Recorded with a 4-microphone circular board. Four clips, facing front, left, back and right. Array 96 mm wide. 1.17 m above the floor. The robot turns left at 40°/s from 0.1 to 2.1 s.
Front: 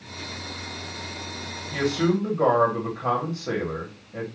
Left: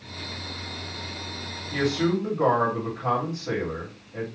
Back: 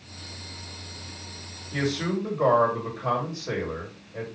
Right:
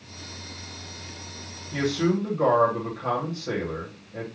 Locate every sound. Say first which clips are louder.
1.7 s a man speaking: even, front 4 dB; 20° left, 1.3 m; by 4.2 s 5° left, 1.3 m